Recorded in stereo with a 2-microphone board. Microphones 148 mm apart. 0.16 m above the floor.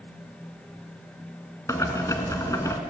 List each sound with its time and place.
1.7 s boiling: 20° left (ahead or behind), 1.1 m